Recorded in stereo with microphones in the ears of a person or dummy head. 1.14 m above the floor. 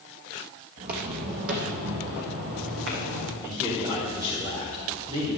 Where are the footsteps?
45° right (ahead or behind), 1.9 m; by 3.3 s 60° right (ahead or behind), 2.5 m.